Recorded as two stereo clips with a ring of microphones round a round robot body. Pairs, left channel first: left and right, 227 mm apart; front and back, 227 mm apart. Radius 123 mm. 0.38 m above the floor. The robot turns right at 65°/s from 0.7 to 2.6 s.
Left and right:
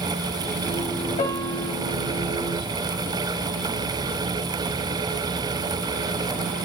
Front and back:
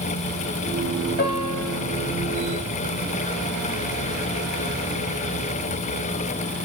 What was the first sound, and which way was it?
A piano, 35° left.